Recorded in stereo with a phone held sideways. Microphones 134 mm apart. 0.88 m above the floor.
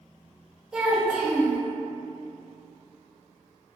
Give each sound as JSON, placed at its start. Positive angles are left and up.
{"t": 0.7, "sound": "a child speaking", "side_deg": -5, "distance_m": 0.7}